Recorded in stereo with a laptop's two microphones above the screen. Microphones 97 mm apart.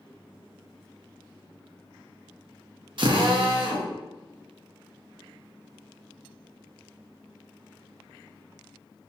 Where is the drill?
55° right (ahead or behind), 0.5 m.